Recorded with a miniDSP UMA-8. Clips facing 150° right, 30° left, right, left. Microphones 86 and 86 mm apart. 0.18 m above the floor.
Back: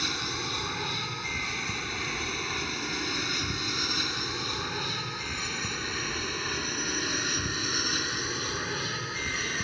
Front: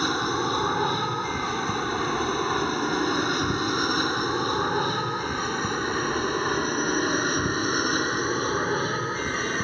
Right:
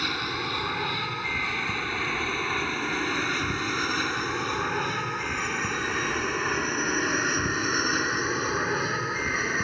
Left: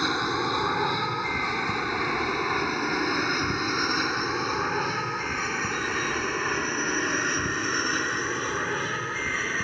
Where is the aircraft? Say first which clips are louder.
Front 10 dB, left 5 dB; 35° left; by 9.7 s 10° right.